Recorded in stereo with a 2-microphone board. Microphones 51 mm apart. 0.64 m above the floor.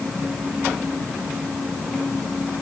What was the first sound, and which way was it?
Only background noise.